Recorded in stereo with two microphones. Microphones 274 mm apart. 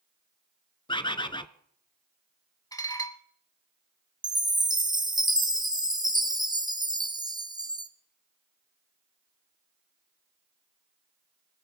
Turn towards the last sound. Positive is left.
turn(degrees=-15)  # may be behind; listen again after turning